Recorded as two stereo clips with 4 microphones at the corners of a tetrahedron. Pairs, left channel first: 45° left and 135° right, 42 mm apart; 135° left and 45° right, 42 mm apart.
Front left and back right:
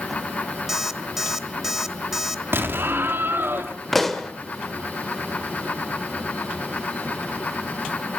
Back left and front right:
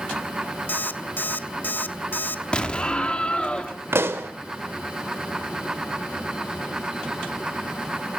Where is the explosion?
160° right, 1.7 m.